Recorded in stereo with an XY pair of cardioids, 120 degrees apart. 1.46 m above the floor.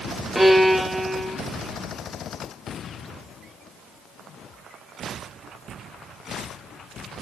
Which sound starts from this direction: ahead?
A violin, at 0.3 s.